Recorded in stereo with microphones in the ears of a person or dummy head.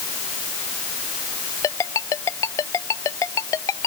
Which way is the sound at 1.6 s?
20° left (ahead or behind).